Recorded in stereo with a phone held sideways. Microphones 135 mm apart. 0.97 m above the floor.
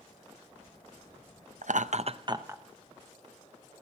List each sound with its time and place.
1.6 s laughter: 65° right (ahead or behind), 0.7 m; by 2.6 s 15° right (ahead or behind), 0.7 m